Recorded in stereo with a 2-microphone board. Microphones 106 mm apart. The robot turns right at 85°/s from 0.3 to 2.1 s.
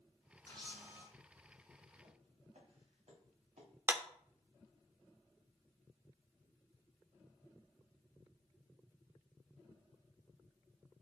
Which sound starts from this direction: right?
Footsteps, at 2.0 s.